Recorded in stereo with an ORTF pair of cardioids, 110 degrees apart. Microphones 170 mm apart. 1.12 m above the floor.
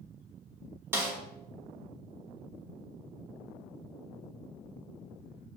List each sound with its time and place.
0.9 s a snare drum: 15° right, 1.0 m